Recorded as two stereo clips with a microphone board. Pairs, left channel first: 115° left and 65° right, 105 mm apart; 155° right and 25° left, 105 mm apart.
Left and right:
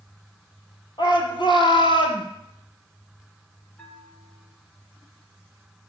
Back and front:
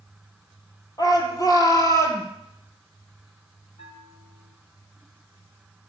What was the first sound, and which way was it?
A shout, 155° left.